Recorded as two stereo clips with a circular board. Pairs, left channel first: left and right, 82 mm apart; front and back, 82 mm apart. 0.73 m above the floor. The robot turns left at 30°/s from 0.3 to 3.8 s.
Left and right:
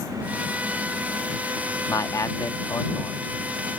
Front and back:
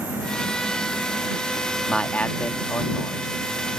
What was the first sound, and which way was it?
A man speaking, 75° left.